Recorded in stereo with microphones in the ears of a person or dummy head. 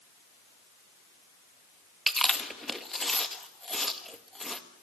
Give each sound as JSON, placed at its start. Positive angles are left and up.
{"t": 2.1, "sound": "chewing", "side_deg": -5, "distance_m": 1.7}